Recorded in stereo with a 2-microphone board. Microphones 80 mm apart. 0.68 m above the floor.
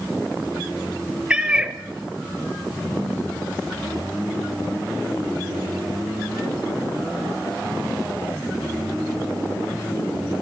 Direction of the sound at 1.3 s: 10° right (ahead or behind).